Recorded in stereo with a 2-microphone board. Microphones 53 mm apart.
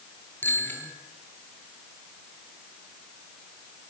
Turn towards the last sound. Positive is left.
turn(degrees=35)  # may be behind; listen again after turning